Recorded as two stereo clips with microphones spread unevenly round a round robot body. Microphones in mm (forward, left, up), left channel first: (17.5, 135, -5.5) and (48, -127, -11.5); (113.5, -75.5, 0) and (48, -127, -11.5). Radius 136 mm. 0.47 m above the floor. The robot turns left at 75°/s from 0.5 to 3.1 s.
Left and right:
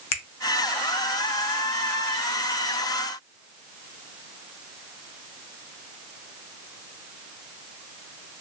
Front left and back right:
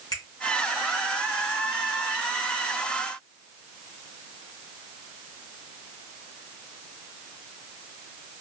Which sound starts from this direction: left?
A finger snap, at 0.1 s.